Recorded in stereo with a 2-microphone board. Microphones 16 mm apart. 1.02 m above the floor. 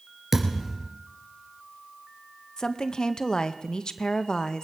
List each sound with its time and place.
0.3 s a thud: 30° right (ahead or behind), 2.5 m
2.6 s a woman speaking: 60° left (ahead or behind), 0.6 m